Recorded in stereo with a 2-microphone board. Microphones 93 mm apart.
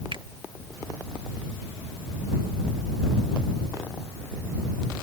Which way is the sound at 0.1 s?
60° right (ahead or behind).